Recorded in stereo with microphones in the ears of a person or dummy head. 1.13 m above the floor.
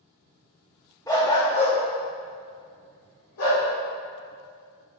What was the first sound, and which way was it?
A dog barking, 15° left (ahead or behind).